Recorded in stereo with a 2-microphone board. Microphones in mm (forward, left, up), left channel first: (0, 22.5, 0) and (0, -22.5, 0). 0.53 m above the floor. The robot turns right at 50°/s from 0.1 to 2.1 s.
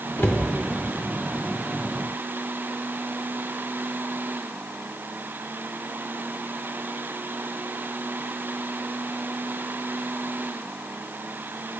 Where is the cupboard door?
55° left (ahead or behind), 0.5 m; by 0.5 s 45° left (ahead or behind), 0.5 m.